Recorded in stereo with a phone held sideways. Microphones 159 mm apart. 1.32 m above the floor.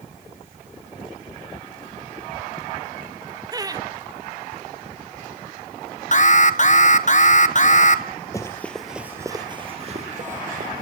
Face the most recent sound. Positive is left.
turn(degrees=-60)  # may be behind; listen again after turning